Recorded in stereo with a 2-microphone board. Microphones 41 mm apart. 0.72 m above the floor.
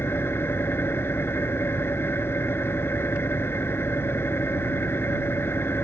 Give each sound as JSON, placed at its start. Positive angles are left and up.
{"t": 0.0, "sound": "an engine running", "side_deg": 70}